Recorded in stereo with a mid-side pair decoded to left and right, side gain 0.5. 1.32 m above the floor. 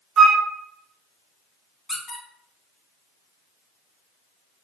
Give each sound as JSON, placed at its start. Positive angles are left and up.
{"t": 0.2, "sound": "a flute", "azimuth_deg": -50, "distance_m": 0.7}
{"t": 1.9, "sound": "a squeak", "azimuth_deg": 15, "distance_m": 1.1}